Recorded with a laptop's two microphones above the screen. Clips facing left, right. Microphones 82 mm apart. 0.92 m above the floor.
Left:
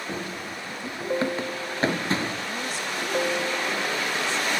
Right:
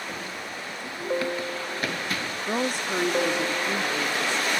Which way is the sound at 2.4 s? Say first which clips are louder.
Right 4 dB; 50° right (ahead or behind).